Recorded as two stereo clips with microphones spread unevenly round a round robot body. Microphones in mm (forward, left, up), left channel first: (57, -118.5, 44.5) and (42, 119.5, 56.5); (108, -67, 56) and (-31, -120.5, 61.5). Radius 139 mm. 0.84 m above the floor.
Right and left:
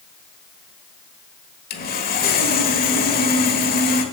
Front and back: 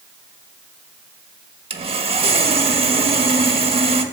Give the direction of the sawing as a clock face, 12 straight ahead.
4 o'clock.